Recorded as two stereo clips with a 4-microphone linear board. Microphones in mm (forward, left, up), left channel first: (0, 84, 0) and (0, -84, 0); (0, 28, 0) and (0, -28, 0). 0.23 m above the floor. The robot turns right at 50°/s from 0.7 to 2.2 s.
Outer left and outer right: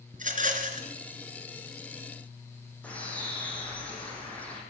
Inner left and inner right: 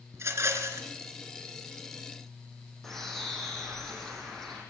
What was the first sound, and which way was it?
A rattle, 50° right (ahead or behind).